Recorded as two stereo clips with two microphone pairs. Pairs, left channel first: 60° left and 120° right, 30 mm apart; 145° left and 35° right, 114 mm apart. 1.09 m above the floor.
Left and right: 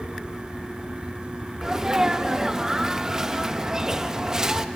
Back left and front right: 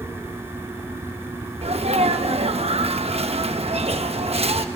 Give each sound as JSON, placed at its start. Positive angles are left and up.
{"t": 1.6, "sound": "a sneeze", "azimuth_deg": -55, "distance_m": 1.1}